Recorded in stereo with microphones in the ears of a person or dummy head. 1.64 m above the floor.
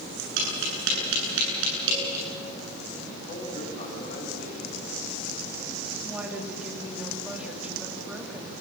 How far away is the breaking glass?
No breaking glass in this recording.